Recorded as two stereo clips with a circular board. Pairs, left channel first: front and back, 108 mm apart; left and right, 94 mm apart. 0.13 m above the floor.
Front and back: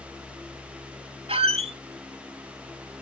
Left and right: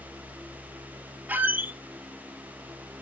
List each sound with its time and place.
1.3 s a squeak: 160° right, 0.5 m